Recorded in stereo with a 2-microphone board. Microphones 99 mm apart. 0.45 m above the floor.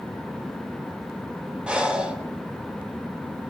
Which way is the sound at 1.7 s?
10° right (ahead or behind).